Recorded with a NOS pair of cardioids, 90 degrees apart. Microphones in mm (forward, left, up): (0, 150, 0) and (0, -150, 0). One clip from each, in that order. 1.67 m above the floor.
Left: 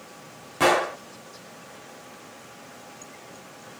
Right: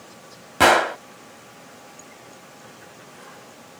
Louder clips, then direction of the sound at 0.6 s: Right 5 dB; 40° right.